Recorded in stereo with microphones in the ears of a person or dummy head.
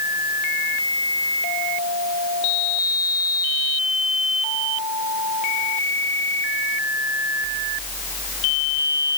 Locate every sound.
Only background noise.